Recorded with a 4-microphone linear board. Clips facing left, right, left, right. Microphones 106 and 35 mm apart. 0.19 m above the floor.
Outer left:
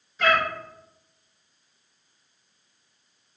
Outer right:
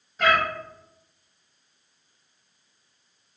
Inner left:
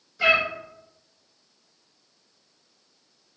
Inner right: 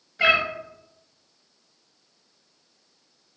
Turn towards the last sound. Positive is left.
turn(degrees=-50)  # may be behind; listen again after turning